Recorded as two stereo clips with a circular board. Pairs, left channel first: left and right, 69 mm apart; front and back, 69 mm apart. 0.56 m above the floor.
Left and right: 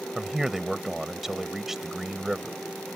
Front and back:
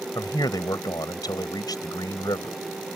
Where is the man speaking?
5° right.